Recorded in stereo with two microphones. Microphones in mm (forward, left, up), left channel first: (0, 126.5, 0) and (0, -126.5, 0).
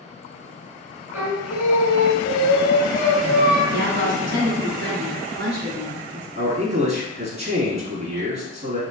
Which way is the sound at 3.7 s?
45° right (ahead or behind).